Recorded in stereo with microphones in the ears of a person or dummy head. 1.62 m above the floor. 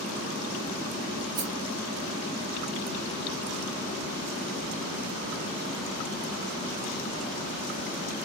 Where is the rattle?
60° right (ahead or behind), 0.9 m.